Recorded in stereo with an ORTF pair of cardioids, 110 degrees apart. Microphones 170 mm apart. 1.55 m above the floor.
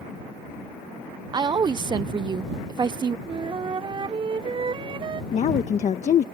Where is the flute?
30° right.